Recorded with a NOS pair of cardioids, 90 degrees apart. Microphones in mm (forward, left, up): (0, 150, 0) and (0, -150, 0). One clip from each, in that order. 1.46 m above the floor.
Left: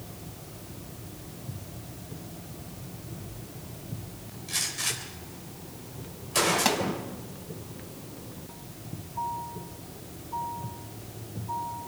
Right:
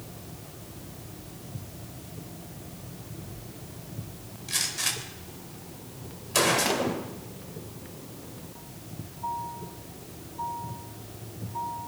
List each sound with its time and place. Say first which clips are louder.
4.5 s a gunshot: right 1 dB; 25° right, 4 m
6.7 s a pop: left 2 dB; 40° left, 4.5 m